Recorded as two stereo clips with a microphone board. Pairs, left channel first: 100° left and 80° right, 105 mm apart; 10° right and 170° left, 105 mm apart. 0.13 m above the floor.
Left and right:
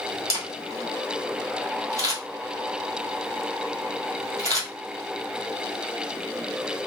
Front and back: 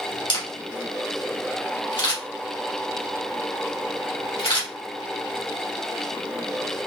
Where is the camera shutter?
30° right, 1.9 m.